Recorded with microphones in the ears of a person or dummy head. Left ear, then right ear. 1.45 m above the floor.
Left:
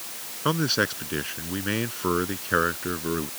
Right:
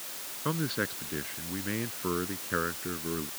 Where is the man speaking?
75° left (ahead or behind).